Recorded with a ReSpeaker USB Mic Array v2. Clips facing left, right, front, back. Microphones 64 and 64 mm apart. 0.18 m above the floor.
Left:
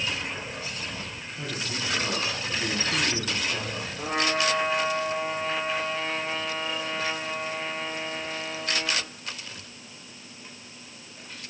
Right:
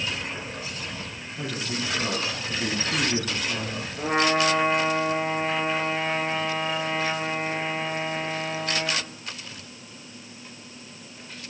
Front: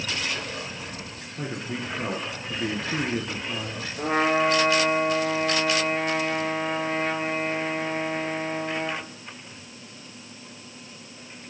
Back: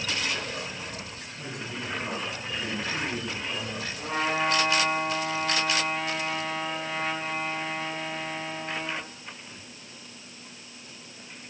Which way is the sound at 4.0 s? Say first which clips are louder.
Right 4 dB, front 6 dB; 40° right.